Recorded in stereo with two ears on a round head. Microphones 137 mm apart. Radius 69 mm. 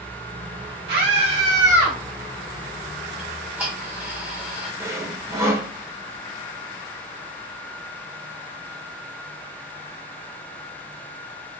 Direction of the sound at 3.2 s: 10° right (ahead or behind).